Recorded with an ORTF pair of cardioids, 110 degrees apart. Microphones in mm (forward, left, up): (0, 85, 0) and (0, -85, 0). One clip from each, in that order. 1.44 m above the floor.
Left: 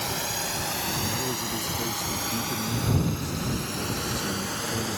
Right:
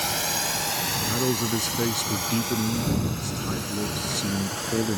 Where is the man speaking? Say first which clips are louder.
Right 4 dB; 50° right.